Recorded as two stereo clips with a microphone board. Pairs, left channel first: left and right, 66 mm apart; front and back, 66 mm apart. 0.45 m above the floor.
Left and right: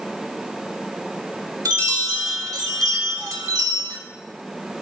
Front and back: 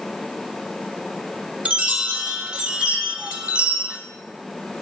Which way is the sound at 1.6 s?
110° right.